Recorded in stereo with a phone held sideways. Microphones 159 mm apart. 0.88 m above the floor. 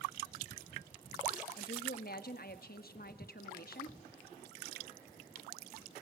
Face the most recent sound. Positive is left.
turn(degrees=65)  # may be behind; listen again after turning